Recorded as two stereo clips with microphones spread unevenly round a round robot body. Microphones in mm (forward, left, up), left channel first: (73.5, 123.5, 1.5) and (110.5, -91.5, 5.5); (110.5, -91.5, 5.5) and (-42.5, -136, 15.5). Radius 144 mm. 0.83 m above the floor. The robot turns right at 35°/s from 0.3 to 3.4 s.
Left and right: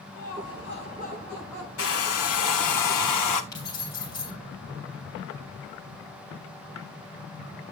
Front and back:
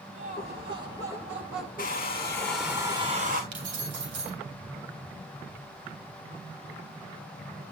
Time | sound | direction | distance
0.1 | laughter | 140° left | 5.5 m
1.8 | a hair dryer | 80° left | 1.3 m
3.5 | keys jangling | straight behind | 3 m